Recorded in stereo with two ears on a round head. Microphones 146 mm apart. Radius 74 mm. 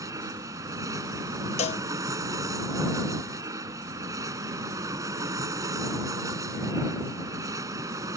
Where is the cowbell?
40° left (ahead or behind).